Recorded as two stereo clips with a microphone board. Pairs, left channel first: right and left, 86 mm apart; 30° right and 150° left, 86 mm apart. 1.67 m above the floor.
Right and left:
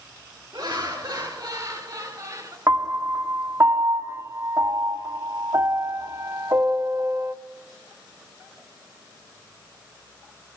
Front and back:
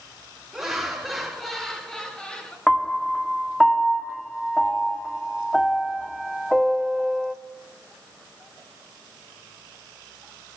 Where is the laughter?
65° left, 4 m; by 2.6 s 45° left, 3.5 m.